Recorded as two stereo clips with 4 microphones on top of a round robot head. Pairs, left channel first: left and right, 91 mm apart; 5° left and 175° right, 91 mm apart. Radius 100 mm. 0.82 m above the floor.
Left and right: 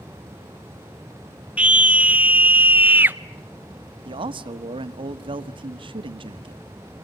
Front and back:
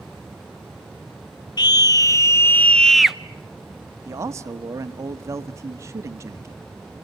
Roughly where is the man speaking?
Behind right.